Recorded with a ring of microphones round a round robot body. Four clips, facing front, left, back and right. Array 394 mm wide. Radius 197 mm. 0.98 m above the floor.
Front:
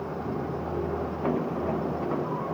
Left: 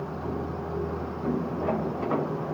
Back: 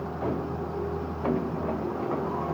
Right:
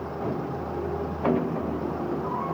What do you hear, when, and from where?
Only background noise.